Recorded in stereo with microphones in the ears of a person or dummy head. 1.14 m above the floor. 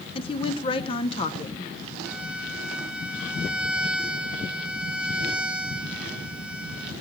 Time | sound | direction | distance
0.1 | a woman speaking | 25° left (ahead or behind) | 0.9 m
2.0 | a violin | 10° right (ahead or behind) | 1.5 m